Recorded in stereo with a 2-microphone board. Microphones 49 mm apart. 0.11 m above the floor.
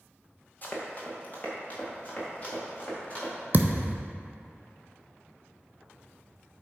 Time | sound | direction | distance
0.6 | running footsteps | 35° left (ahead or behind) | 2 m
3.5 | a thud | 45° right (ahead or behind) | 0.5 m